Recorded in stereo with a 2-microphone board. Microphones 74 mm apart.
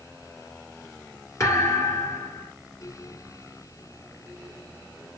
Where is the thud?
40° left (ahead or behind), 1.4 m.